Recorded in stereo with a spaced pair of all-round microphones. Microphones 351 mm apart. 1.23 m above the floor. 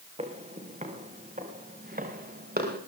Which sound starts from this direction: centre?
Footsteps, at 0.2 s.